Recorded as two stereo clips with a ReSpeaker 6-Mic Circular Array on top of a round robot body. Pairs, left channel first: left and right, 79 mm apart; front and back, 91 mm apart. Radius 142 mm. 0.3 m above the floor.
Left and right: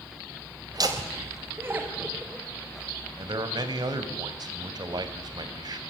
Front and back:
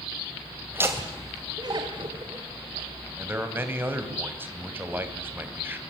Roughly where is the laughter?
Behind right.